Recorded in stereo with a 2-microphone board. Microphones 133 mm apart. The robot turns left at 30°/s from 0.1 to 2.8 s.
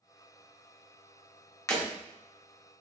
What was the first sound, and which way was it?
Breaking glass, 25° left (ahead or behind).